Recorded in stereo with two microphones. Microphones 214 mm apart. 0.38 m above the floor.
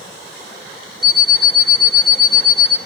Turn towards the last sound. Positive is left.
turn(degrees=-50)  # may be behind; listen again after turning